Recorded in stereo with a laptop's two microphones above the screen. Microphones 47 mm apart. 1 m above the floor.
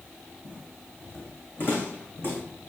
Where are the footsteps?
35° left (ahead or behind), 3.5 m; by 2.4 s 50° left (ahead or behind), 4 m.